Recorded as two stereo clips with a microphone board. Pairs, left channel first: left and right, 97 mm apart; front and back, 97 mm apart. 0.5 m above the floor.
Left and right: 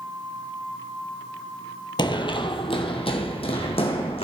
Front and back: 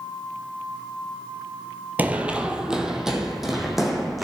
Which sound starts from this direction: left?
Running footsteps, at 2.0 s.